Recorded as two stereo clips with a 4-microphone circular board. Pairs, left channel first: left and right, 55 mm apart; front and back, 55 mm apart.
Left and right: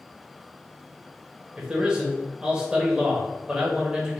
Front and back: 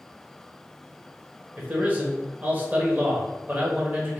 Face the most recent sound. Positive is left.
turn(degrees=-150)